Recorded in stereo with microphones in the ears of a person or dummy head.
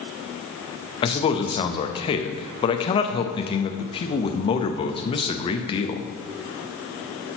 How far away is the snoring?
No snoring in this recording.